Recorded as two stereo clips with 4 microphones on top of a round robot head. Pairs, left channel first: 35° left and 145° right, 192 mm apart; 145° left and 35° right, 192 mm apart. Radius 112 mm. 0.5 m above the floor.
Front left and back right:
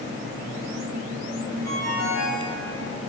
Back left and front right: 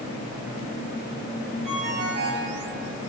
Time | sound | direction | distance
1.6 | a ringtone | 20° left | 3 m